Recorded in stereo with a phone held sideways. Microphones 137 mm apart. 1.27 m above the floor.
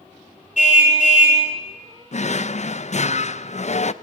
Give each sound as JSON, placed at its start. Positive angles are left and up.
{"t": 0.6, "sound": "a car horn", "side_deg": 65, "distance_m": 4.0}
{"t": 2.1, "sound": "a drawer", "side_deg": 55, "distance_m": 0.5}